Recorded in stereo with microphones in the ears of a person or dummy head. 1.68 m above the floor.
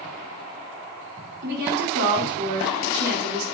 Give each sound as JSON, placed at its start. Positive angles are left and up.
{"t": 1.4, "sound": "a woman speaking", "side_deg": -65, "distance_m": 5.0}